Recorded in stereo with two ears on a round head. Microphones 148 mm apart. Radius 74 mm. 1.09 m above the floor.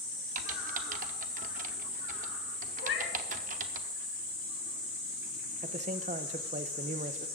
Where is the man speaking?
40° right (ahead or behind), 0.5 m.